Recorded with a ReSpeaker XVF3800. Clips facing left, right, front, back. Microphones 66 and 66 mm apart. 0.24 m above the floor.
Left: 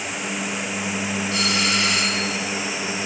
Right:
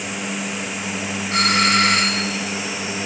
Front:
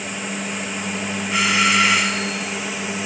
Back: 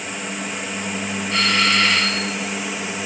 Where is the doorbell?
80° right, 3 m.